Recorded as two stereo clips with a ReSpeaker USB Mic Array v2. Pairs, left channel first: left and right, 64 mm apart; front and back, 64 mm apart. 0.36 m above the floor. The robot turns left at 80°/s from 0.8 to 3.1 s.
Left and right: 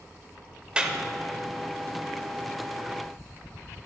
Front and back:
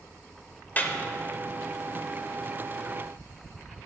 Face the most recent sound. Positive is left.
turn(degrees=145)